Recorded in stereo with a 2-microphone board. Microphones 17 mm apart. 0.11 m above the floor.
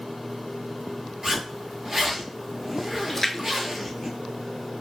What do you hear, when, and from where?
1.2 s a zipper: 20° right (ahead or behind), 1.1 m
3.1 s a splash: 25° left (ahead or behind), 0.6 m